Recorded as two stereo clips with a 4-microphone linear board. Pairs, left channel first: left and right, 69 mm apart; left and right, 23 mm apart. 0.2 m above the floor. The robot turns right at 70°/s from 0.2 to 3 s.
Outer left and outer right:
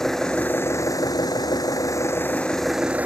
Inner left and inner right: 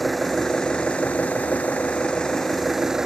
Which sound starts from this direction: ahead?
An engine running, at 0.0 s.